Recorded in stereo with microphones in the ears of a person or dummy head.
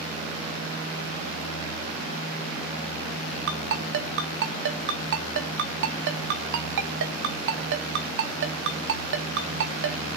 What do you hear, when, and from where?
3.5 s a ringtone: 65° right (ahead or behind), 1.5 m